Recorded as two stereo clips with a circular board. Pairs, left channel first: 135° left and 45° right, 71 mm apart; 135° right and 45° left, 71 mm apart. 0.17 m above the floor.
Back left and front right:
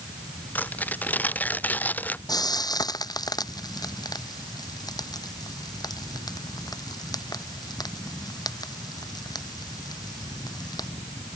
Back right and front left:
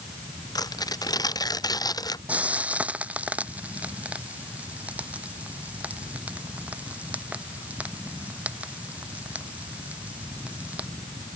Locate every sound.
0.6 s tearing paper: 160° right
2.3 s frying: 115° left